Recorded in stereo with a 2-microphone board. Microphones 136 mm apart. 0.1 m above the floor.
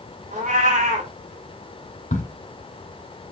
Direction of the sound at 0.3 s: 65° right (ahead or behind).